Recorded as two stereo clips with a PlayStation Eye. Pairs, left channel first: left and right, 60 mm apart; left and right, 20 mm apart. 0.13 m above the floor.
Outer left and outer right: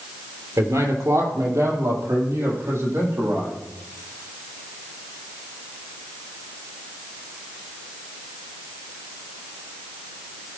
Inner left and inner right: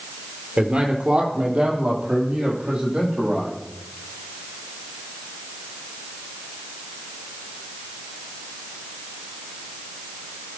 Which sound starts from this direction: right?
A man speaking, at 0.6 s.